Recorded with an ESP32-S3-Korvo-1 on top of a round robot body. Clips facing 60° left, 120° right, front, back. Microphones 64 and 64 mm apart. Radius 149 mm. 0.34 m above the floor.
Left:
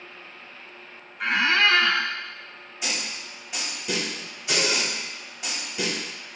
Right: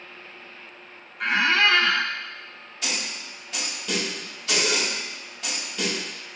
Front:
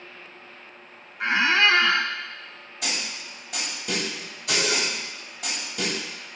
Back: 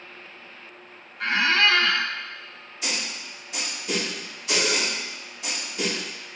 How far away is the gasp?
No gasp in this recording.